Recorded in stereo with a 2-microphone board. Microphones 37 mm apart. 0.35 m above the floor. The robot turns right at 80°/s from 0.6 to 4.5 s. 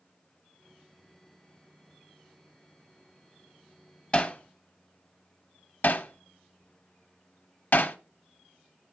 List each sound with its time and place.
4.1 s hammering: 35° left (ahead or behind), 0.8 m; by 8.0 s 60° left (ahead or behind), 0.8 m